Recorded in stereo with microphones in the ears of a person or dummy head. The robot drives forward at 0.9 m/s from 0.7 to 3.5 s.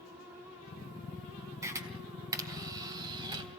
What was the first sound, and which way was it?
A camera shutter, 15° right (ahead or behind).